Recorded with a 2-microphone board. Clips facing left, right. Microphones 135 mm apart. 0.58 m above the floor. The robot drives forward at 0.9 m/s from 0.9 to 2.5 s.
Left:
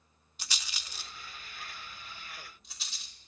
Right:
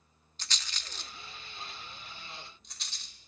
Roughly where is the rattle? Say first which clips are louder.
Even; centre.